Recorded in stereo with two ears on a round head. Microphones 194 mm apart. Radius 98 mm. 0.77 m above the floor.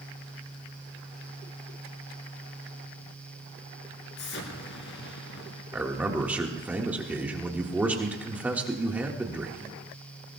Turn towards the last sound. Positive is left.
turn(degrees=-5)  # may be behind; listen again after turning